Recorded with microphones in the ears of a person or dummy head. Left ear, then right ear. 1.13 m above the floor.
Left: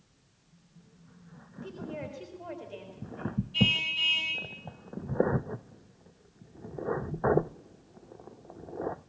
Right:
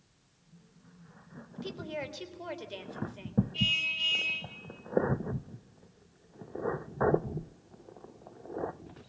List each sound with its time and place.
1.6 s a woman speaking: 30° right (ahead or behind), 3.5 m
3.5 s a car horn: 30° left (ahead or behind), 4.5 m